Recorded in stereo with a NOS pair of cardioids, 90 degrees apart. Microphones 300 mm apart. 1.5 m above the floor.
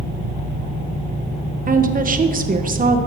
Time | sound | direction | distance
1.7 | a woman speaking | 30° right | 1.3 m